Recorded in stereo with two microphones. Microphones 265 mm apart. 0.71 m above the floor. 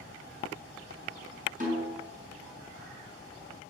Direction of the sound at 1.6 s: 30° right (ahead or behind).